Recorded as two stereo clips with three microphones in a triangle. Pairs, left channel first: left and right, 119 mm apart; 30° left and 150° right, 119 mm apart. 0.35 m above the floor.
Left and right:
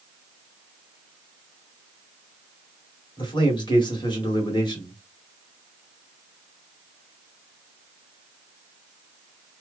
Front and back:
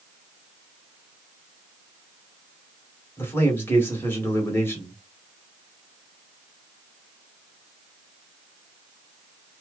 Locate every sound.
3.2 s a man speaking: 90° left, 1.6 m